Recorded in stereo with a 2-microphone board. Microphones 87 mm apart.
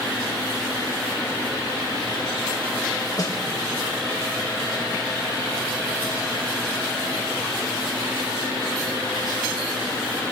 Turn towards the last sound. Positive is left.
turn(degrees=45)  # may be behind; listen again after turning